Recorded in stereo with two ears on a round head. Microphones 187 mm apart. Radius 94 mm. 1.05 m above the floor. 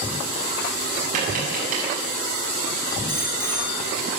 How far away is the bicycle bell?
About 4.5 m.